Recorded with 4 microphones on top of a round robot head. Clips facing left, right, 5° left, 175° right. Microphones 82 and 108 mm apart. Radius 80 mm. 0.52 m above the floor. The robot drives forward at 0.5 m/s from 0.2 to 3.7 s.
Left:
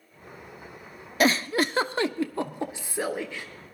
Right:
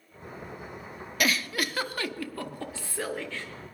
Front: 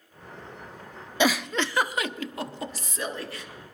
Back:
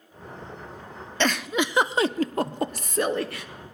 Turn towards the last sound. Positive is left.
turn(degrees=165)